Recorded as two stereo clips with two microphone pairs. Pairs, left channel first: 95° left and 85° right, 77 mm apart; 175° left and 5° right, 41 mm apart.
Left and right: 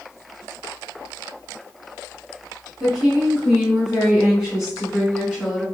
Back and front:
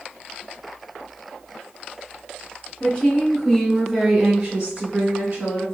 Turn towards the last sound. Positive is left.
turn(degrees=0)